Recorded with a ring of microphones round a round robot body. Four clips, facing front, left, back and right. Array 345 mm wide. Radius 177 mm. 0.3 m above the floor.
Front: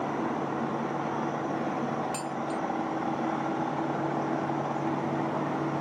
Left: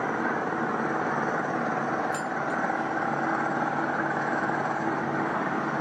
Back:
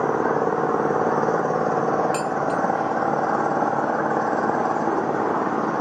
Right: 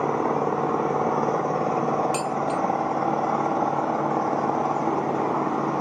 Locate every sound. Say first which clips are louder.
0.0 s an engine running: right 5 dB, back 10 dB; 160° right
2.1 s dishes clattering: right 4 dB, back 9 dB; 120° right